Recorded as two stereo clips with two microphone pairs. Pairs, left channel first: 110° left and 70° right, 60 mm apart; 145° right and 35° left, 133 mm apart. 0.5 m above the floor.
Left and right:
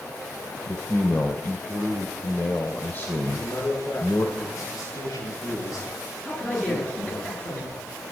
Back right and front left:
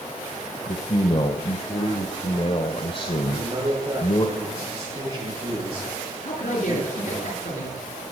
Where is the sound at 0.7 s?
170° left, 1.7 m.